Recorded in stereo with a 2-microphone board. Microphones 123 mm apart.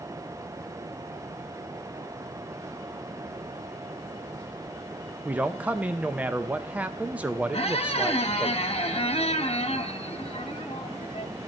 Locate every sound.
5.2 s a man speaking: 10° right (ahead or behind), 0.5 m
7.5 s a squeak: 55° left (ahead or behind), 0.8 m